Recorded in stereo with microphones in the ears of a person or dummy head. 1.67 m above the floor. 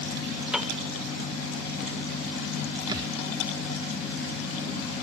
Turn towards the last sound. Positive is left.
turn(degrees=-25)  # may be behind; listen again after turning